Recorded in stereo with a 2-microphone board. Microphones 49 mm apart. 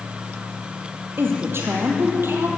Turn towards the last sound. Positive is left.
turn(degrees=-55)  # may be behind; listen again after turning